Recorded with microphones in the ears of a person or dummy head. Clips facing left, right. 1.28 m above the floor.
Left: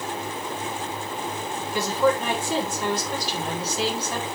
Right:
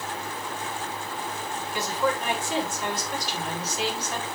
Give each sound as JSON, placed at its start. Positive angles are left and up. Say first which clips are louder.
{"t": 1.7, "sound": "a woman speaking", "louder": "left 6 dB", "side_deg": 35, "distance_m": 4.0}